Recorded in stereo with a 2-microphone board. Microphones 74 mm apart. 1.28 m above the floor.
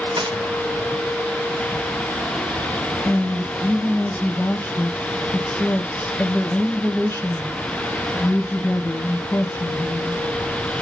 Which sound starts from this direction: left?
A woman speaking, at 3.0 s.